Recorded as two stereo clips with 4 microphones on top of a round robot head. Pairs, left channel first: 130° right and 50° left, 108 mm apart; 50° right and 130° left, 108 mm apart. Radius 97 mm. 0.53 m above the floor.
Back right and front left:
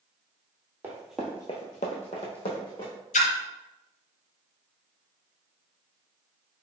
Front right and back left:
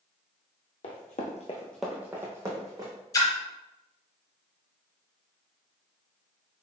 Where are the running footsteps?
25° right, 1.1 m; by 2.9 s 170° right, 2.0 m.